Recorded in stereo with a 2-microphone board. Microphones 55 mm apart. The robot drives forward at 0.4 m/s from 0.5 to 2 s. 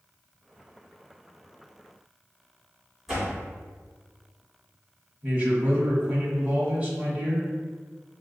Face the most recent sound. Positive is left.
turn(degrees=-20)  # may be behind; listen again after turning